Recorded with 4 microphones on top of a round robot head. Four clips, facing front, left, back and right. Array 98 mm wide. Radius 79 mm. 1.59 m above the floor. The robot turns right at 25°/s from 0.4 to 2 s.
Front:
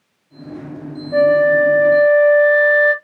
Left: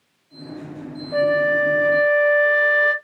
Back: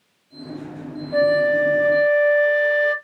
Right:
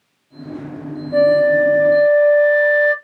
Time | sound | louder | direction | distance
1.1 | a flute | right 6 dB, front 5 dB | 30° left | 1.1 m